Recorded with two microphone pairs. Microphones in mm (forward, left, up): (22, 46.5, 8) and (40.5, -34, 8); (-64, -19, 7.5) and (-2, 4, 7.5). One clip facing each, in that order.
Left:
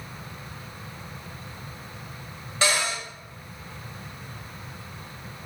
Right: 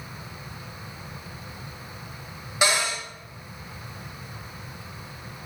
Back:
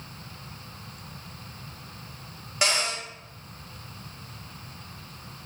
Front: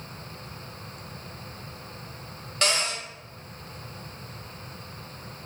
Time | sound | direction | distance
2.6 | a cupboard door | 115° right | 1.2 m